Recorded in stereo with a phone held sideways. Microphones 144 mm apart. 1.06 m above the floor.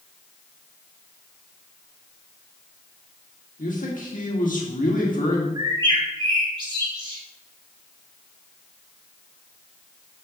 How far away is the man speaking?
About 1.7 m.